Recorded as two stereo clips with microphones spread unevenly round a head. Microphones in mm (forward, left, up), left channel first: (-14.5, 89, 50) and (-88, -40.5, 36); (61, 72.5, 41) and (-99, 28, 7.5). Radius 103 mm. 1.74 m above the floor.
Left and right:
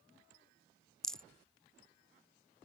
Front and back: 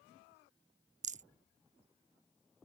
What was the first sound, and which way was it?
A rattle, 145° left.